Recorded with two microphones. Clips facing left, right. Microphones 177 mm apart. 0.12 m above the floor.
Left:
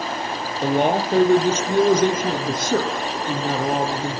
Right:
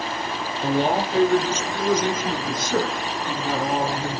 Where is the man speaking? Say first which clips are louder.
Left 2 dB; 65° left (ahead or behind), 4.5 m; by 4.2 s 20° left (ahead or behind), 4 m.